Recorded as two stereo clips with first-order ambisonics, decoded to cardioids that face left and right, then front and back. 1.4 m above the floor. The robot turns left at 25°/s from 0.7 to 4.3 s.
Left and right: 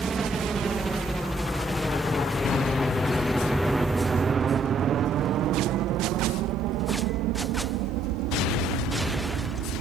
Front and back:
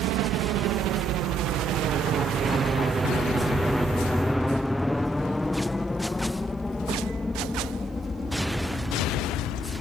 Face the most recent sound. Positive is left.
turn(degrees=-75)